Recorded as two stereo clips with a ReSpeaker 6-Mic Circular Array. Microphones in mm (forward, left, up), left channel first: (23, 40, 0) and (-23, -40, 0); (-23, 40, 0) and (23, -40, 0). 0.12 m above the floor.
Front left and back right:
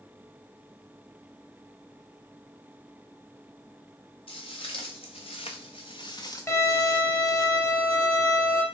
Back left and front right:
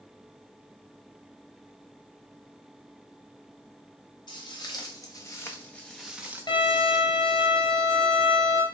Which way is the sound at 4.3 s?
80° left.